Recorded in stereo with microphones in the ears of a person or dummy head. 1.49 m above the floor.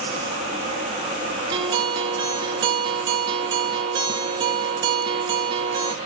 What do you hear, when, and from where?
1.5 s a guitar: 25° right (ahead or behind), 0.5 m